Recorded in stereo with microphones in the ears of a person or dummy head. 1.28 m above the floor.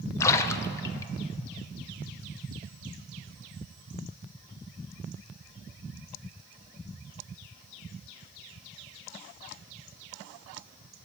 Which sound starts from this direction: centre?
A splash, at 0.2 s.